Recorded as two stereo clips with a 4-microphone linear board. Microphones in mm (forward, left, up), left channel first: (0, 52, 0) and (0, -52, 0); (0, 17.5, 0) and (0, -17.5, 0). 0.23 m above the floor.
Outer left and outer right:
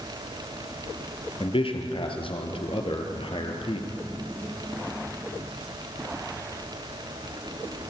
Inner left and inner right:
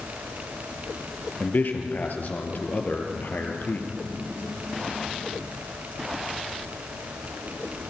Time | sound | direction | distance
1.4 | a man speaking | 60° left (ahead or behind) | 4 m